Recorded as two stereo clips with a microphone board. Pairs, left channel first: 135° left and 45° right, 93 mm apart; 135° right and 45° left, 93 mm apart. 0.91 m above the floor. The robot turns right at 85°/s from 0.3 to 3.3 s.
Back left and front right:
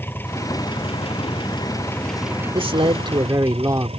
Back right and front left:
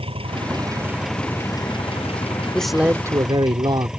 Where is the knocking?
I don't hear knocking.